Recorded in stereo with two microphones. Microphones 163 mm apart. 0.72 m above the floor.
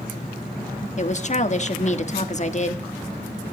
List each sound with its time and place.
1.0 s a woman speaking: 45° left (ahead or behind), 1.3 m